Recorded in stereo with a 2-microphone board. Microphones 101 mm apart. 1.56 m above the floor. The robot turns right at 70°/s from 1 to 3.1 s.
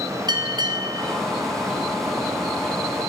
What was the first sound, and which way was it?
A bell, 50° right (ahead or behind).